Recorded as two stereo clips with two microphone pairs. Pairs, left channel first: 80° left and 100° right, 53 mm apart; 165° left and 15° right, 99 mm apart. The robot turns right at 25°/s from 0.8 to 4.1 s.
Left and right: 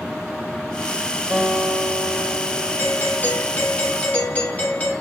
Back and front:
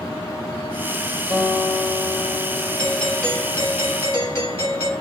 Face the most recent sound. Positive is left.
turn(degrees=120)